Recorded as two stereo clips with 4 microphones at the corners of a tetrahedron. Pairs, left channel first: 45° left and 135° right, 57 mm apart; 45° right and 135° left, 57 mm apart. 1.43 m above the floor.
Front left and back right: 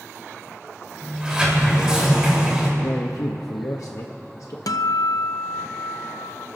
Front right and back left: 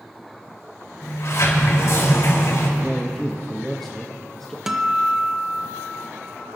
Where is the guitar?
55° left, 0.6 m.